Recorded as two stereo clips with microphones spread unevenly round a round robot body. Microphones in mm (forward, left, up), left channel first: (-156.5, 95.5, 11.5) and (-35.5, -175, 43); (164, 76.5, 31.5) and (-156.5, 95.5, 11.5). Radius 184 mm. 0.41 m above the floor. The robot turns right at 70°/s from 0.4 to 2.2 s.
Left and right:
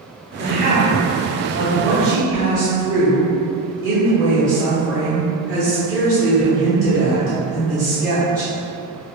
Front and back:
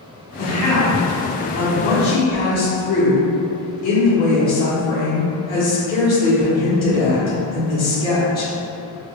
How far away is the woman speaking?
About 1.2 m.